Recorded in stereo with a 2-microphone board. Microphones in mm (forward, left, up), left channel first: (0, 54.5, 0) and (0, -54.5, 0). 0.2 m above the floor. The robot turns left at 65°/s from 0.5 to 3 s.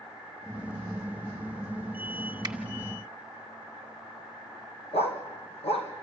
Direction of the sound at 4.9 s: 65° left (ahead or behind).